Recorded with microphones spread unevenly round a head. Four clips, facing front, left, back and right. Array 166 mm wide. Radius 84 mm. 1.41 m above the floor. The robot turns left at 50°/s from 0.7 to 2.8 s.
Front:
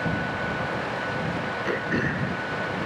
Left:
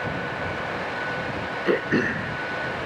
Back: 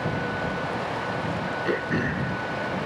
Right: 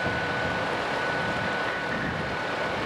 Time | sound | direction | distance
1.6 | throat clearing | 105° left | ?